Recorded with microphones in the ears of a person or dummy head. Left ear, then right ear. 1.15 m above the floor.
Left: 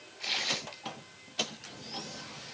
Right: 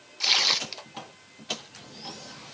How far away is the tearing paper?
About 0.7 m.